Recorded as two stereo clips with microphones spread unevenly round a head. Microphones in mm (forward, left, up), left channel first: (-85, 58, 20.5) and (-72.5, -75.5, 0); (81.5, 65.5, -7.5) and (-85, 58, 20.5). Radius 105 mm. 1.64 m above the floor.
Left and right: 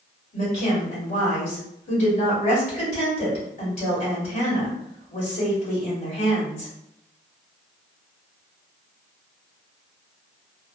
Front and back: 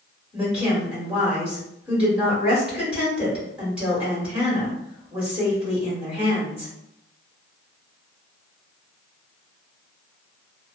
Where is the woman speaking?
100° left, 1.6 m.